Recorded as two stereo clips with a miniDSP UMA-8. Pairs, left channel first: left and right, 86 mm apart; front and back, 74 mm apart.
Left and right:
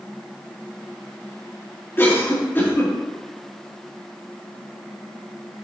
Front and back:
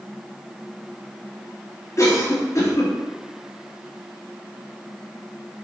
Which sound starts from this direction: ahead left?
A cough, at 2.0 s.